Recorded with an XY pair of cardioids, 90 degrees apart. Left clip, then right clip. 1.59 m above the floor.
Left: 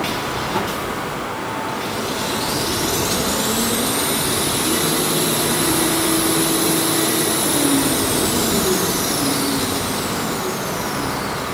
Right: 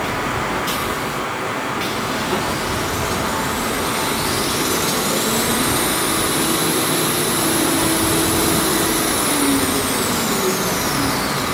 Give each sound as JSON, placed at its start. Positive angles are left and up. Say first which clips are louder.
{"t": 0.0, "sound": "running water", "louder": "right 1 dB", "azimuth_deg": -55, "distance_m": 10.0}